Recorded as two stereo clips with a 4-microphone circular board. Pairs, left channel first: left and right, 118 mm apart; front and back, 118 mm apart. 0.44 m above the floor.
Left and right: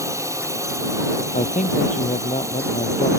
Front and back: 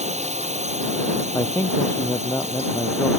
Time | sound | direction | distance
0.0 | a drone | 155° right | ?
1.3 | a man speaking | 70° left | ?